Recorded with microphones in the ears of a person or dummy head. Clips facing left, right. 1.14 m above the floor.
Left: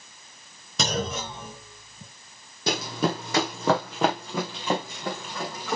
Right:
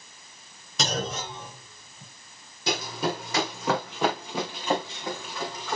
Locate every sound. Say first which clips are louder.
0.8 s a clunk: left 2 dB; 75° left (ahead or behind), 3.5 m
2.7 s running footsteps: left 2 dB; 45° left (ahead or behind), 2.5 m